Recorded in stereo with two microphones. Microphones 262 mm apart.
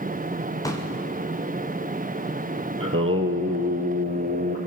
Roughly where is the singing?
Right.